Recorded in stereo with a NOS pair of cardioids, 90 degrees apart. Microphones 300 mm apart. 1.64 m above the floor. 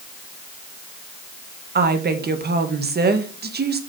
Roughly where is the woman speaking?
Ahead right.